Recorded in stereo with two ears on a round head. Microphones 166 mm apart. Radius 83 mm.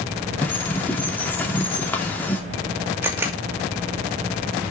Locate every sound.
0.4 s a bird: 10° left (ahead or behind), 2.5 m
3.0 s a camera shutter: 10° right (ahead or behind), 2.5 m